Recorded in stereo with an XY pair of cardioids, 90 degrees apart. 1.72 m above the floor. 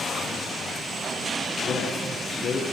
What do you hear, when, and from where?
1.6 s a man speaking: 60° left, 1.3 m